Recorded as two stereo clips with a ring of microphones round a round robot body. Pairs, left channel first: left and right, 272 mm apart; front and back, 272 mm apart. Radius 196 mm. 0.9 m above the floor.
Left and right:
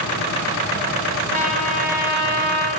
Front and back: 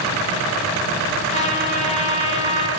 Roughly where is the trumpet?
Ahead left.